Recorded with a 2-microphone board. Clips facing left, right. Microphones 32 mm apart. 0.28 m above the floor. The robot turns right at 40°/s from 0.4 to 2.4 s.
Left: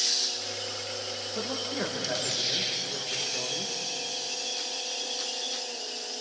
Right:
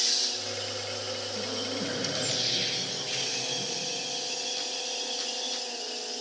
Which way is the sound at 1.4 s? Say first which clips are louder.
Left 3 dB; 75° left.